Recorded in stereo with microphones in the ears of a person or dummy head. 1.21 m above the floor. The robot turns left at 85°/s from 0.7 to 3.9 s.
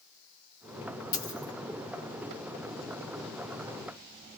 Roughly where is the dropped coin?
Left.